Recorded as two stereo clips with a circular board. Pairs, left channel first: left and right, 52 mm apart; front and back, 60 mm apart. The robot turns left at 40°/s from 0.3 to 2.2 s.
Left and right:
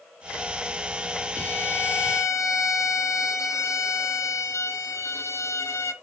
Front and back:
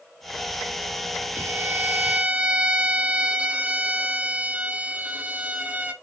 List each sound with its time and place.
1.4 s a violin: 145° left, 0.7 m; by 5.9 s 110° left, 0.7 m